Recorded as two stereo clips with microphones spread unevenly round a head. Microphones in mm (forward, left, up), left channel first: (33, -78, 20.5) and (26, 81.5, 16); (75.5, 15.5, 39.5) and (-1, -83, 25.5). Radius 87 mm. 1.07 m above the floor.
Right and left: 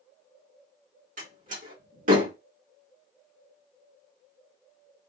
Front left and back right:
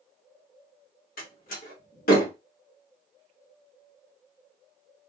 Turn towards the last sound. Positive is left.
turn(degrees=55)